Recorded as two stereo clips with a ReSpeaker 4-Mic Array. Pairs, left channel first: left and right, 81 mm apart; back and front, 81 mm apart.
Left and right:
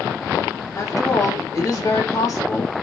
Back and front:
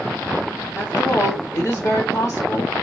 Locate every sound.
0.8 s a woman speaking: 140° left, 3 m